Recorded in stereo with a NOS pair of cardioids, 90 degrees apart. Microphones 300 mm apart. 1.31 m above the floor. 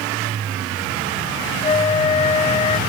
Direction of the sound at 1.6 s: 25° left.